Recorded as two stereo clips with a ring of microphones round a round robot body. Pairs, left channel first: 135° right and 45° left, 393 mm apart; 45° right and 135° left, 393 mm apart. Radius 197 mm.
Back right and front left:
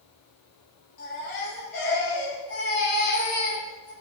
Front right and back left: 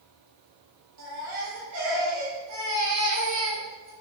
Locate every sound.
1.0 s a baby crying: 175° right, 5.5 m